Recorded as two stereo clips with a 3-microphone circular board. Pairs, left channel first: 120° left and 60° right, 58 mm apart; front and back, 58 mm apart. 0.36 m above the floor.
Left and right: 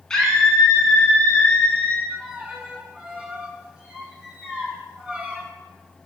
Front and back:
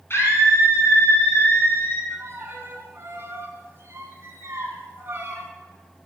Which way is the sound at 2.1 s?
135° right.